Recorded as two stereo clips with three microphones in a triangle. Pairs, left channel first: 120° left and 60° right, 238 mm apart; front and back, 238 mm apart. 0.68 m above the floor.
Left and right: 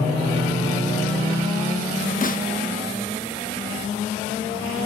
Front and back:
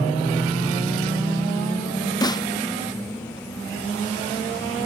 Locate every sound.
2.2 s a snare drum: 75° left, 0.6 m